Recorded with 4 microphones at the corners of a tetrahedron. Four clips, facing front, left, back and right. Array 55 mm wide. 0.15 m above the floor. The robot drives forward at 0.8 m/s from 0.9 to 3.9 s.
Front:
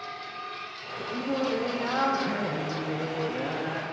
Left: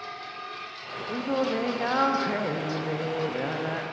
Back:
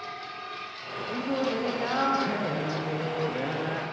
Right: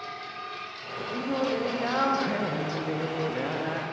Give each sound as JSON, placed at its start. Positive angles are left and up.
{"t": 1.1, "sound": "singing", "azimuth_deg": 90, "distance_m": 6.5}